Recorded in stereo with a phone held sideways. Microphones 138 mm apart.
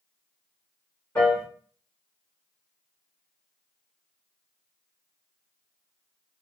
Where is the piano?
15° left (ahead or behind), 1.6 m.